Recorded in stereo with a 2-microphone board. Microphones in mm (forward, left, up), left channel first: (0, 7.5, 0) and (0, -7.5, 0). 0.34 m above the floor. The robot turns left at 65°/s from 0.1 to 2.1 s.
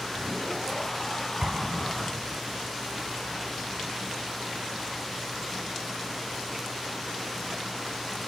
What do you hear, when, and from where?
1.4 s an explosion: 70° right (ahead or behind), 1.5 m; by 2.4 s 35° right (ahead or behind), 1.5 m